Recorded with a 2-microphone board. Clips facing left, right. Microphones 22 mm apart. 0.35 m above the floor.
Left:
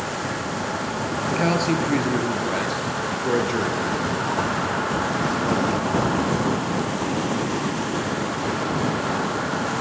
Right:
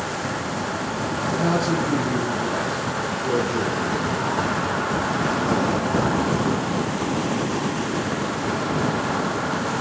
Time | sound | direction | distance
1.3 | a man speaking | 65° left (ahead or behind) | 6.5 m